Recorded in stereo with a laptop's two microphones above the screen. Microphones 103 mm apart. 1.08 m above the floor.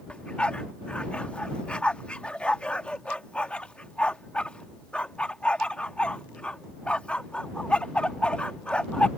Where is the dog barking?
10° left (ahead or behind).